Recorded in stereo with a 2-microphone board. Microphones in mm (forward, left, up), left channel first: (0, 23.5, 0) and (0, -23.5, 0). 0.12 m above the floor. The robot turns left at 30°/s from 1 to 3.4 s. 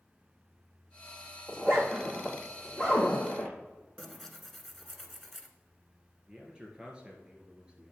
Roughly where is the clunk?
No clunk in this recording.